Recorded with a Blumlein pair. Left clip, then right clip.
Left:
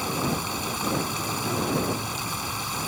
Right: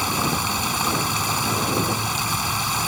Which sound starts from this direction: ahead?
Running water, at 0.0 s.